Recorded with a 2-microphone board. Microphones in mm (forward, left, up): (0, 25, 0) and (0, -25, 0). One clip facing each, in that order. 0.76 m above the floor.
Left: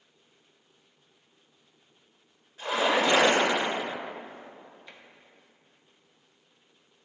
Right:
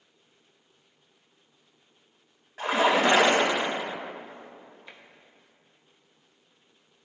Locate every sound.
2.6 s a splash: 75° right (ahead or behind), 3 m
4.9 s tapping: 15° right (ahead or behind), 1.0 m